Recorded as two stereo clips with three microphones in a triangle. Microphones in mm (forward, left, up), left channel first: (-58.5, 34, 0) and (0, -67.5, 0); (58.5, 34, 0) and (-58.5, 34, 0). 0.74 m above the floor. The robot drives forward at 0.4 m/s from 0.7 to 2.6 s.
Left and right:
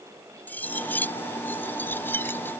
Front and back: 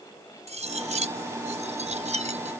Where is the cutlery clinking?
165° right; by 2.5 s 170° right.